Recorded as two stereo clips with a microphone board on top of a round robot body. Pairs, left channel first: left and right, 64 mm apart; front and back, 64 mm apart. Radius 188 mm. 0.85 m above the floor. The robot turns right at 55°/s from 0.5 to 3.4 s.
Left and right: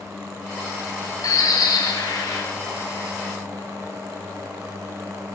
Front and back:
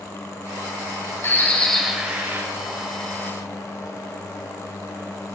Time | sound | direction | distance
1.2 | a bird | 55° left | 4 m